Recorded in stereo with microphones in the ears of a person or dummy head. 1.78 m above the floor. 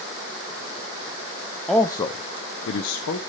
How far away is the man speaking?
About 0.6 m.